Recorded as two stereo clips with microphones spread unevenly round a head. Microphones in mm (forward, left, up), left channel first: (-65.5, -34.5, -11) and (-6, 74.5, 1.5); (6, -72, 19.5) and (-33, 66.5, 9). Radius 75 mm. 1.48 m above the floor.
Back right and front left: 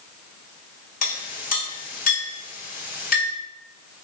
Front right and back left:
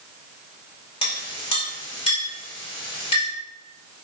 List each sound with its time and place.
1.0 s a clink: 130° right, 5 m